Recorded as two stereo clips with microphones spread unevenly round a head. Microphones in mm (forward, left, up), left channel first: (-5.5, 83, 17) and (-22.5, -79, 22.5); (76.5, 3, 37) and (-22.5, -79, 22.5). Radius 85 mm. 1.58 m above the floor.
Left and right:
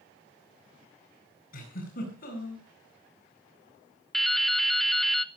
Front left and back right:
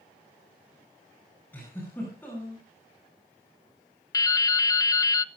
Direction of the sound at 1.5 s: 120° left.